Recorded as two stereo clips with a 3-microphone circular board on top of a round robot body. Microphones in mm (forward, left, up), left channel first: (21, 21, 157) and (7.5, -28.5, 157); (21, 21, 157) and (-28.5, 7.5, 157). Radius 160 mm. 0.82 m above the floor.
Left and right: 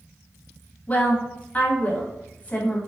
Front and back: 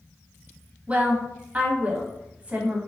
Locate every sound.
0.9 s a woman speaking: 135° left, 0.8 m